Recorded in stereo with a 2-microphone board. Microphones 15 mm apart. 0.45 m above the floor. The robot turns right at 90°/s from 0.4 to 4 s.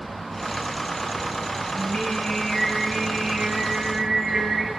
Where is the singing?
90° left, 7 m; by 4.7 s 65° right, 7 m.